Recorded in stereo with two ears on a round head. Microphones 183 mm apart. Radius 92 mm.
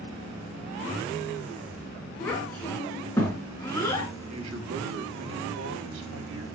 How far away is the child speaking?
About 6.5 m.